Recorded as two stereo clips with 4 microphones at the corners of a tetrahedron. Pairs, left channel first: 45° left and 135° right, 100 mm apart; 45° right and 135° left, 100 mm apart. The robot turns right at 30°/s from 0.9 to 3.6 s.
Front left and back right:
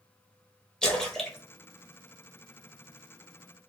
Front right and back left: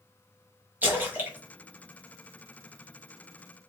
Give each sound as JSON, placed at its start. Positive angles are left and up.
{"t": 0.8, "sound": "a splash", "azimuth_deg": 115, "distance_m": 1.3}